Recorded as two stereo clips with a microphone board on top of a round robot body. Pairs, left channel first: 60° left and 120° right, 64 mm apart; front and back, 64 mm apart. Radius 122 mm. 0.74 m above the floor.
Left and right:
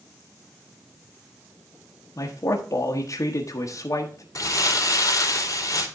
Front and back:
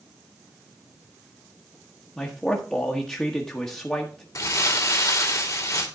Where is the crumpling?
30° left, 2.5 m.